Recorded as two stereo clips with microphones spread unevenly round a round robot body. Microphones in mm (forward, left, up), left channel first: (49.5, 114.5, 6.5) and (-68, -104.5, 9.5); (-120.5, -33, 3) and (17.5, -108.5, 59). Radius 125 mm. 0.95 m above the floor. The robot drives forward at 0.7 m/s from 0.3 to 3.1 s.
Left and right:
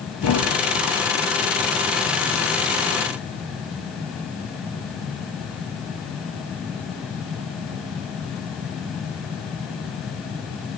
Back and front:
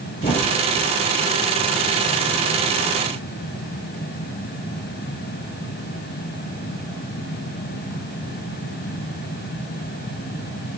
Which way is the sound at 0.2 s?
85° left.